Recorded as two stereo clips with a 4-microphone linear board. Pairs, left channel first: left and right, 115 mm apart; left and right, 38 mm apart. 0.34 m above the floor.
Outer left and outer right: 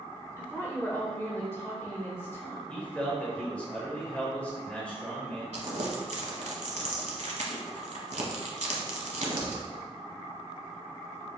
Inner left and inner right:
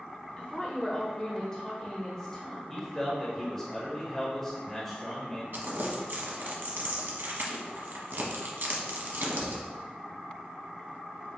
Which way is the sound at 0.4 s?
20° left (ahead or behind).